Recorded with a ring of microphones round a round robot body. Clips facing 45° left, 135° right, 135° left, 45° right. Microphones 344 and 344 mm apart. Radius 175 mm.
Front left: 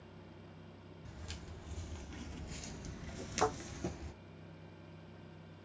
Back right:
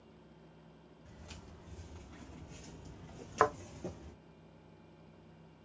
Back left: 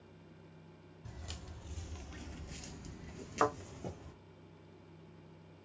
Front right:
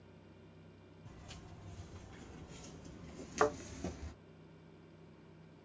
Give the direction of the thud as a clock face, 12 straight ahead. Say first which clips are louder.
Back right 3 dB, front right 1 dB; 4 o'clock.